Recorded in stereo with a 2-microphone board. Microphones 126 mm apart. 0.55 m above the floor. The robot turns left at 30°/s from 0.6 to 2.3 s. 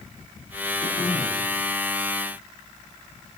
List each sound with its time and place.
0.8 s throat clearing: 55° left (ahead or behind), 4 m; by 1.5 s 35° left (ahead or behind), 4 m